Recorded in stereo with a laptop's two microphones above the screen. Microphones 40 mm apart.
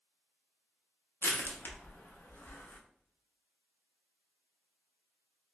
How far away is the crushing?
About 0.9 m.